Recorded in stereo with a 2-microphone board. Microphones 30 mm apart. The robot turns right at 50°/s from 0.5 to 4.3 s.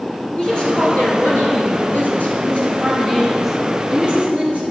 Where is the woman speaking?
35° left, 4 m; by 4.6 s 135° right, 4 m.